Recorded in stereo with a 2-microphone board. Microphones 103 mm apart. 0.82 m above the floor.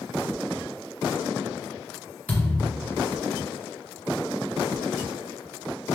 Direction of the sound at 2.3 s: 15° left (ahead or behind).